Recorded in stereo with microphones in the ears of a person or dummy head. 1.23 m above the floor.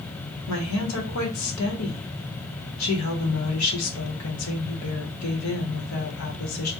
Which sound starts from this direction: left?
A woman speaking, at 0.5 s.